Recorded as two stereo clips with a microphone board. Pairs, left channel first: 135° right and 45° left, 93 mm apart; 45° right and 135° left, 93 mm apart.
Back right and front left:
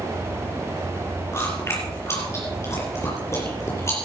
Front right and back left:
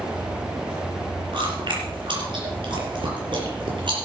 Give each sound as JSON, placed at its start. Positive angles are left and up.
{"t": 1.3, "sound": "chewing", "azimuth_deg": 165, "distance_m": 5.5}